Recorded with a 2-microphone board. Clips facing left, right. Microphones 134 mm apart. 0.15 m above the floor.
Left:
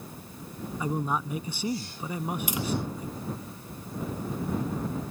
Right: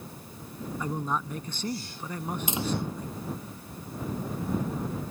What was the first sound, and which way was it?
A man speaking, 10° left (ahead or behind).